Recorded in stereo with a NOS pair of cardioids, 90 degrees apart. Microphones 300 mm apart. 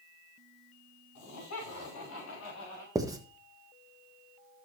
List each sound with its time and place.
1.1 s laughter: 65° left, 5 m; by 2.9 s 50° left, 6 m
3.0 s writing: 10° right, 1.3 m